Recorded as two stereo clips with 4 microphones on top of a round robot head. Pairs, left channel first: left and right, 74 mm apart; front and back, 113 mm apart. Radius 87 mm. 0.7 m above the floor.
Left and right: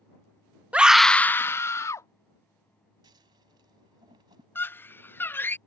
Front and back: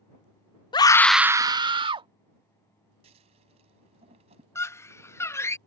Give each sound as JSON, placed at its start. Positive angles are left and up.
{"t": 0.7, "sound": "a scream", "azimuth_deg": -25}
{"t": 3.0, "sound": "scissors", "azimuth_deg": -135}
{"t": 4.5, "sound": "a scream", "azimuth_deg": 50}